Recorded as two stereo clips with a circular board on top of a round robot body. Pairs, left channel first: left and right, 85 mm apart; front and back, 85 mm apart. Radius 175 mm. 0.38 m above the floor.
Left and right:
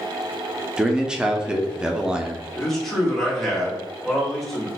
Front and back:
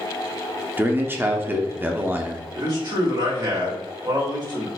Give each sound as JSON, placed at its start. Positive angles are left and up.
{"t": 0.8, "sound": "a man speaking", "azimuth_deg": -160, "distance_m": 0.8}
{"t": 2.5, "sound": "a man speaking", "azimuth_deg": 175, "distance_m": 1.9}